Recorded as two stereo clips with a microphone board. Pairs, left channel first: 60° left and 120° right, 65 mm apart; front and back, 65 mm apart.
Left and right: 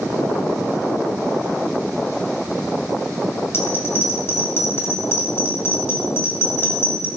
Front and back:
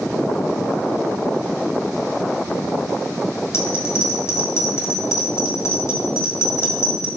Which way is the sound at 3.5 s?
25° left.